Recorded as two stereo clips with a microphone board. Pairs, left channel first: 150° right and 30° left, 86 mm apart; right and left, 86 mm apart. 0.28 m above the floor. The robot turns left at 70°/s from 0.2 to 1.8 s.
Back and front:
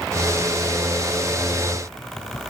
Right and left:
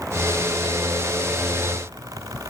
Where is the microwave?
I don't hear a microwave.